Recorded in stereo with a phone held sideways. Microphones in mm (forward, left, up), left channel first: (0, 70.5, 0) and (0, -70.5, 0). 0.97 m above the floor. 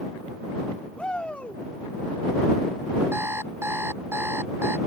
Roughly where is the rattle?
I don't hear a rattle.